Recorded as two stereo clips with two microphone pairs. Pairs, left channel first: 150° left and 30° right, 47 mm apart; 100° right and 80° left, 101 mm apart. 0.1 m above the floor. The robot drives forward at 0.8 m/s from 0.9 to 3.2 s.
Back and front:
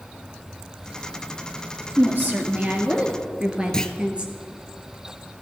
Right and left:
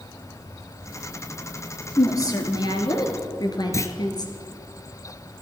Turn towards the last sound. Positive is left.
turn(degrees=-145)